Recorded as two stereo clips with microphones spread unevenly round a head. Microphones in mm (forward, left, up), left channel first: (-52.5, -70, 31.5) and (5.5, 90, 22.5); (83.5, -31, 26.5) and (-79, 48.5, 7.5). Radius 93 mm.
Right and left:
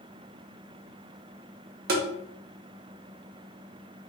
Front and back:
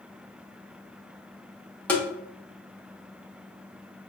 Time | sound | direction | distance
1.9 | tapping | 50° left | 0.7 m